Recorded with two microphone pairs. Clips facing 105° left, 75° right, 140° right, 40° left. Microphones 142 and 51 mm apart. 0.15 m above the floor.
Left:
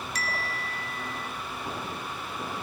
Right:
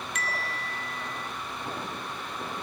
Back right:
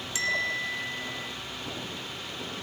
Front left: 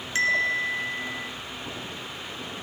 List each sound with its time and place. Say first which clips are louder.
0.1 s a bell: even, front left 6 dB; 65° left, 1.9 m